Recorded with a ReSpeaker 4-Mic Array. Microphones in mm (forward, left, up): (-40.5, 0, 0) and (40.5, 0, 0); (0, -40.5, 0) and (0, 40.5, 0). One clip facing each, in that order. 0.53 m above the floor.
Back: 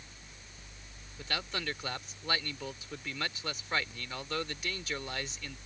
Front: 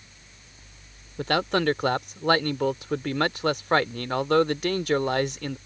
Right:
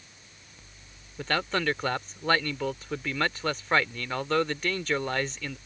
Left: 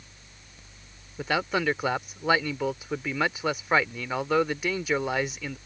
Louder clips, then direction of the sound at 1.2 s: Front 14 dB, left 2 dB; 10° left.